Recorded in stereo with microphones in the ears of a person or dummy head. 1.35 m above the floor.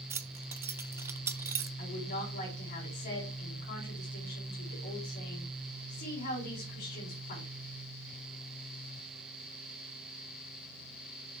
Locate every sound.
0.1 s keys jangling: 15° right (ahead or behind), 0.6 m
1.8 s a woman speaking: 45° left (ahead or behind), 4 m